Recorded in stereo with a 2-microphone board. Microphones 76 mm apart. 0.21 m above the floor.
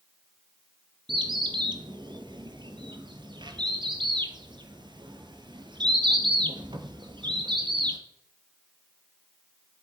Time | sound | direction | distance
1.1 | a bird | 85° right | 0.9 m